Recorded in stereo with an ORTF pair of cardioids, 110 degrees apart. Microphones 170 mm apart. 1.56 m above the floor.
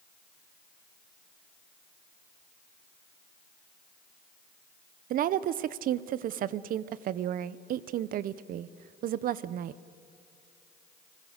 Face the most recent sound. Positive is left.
turn(degrees=-60)